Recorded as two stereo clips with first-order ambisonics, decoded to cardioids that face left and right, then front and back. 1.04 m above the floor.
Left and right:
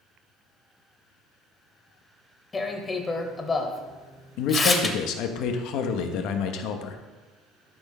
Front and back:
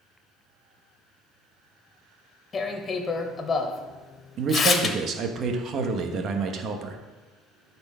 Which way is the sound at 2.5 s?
35° left.